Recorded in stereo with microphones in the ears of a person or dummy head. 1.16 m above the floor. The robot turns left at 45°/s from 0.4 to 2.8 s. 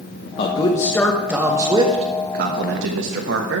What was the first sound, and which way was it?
A man speaking, 40° left.